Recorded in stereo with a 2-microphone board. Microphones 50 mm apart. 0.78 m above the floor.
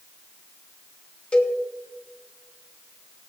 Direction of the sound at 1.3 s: 30° left (ahead or behind).